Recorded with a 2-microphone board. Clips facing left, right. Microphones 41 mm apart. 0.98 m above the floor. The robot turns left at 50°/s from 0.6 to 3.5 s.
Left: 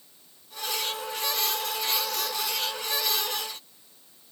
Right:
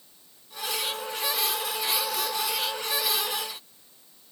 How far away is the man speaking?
I don't hear a man speaking.